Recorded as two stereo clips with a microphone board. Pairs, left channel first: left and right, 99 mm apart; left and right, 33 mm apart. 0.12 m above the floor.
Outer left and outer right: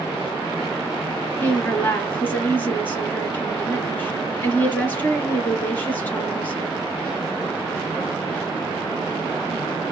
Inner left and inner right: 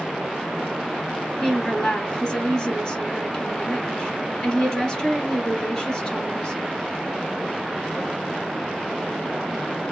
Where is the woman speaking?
20° left (ahead or behind), 1.9 m.